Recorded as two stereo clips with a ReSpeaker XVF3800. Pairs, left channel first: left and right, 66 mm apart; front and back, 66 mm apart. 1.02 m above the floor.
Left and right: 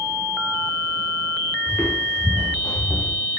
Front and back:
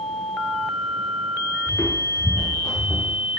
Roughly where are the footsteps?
Ahead left.